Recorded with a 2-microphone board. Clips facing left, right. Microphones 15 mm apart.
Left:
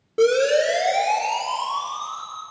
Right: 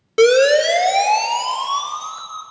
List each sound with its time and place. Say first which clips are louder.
0.2 s a siren: right 6 dB; 55° right (ahead or behind), 2.5 m